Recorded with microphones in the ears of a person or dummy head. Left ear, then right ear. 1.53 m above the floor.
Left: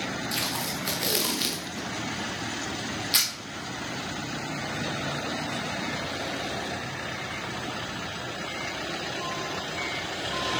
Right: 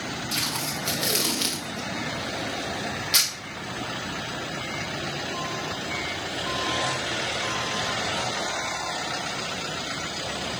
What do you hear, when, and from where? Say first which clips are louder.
0.3 s tape being pulled: right 3 dB; 5° left (ahead or behind), 0.9 m